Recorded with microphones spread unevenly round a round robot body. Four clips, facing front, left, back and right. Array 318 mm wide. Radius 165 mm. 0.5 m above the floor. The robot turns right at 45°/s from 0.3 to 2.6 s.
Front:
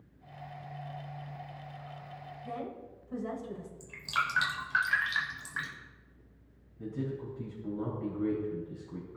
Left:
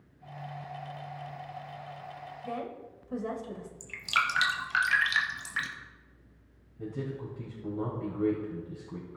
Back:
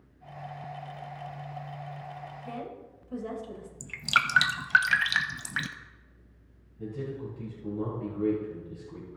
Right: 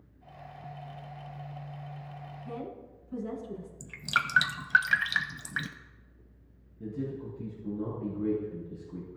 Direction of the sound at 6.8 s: 95° left.